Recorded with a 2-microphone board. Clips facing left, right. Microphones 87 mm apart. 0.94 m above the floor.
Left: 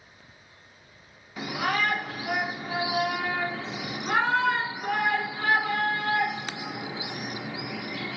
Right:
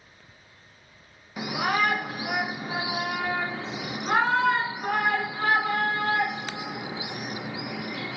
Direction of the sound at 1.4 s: 15° right (ahead or behind).